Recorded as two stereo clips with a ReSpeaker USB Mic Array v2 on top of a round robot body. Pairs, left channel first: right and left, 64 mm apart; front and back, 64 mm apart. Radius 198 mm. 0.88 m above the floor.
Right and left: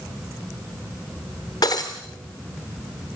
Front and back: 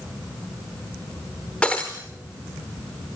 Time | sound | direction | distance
1.6 | breaking glass | 75° right | 0.5 m